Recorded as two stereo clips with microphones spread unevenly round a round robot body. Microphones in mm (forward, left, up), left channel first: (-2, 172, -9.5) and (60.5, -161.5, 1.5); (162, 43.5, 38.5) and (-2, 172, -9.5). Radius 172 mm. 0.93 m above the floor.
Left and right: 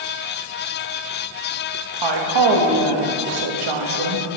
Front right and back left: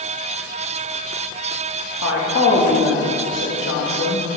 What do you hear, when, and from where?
2.0 s a woman speaking: 90° right, 1.2 m